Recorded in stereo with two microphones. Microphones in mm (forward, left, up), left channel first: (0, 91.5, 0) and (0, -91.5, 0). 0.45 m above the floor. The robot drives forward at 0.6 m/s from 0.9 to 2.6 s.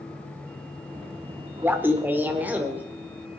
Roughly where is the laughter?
Centre.